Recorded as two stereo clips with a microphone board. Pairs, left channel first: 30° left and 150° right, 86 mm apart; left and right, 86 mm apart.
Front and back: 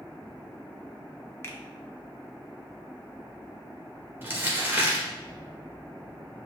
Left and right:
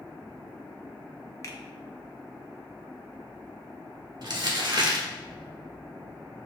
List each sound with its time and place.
1.4 s a finger snap: 70° left, 0.6 m
4.2 s crumpling: 90° right, 1.1 m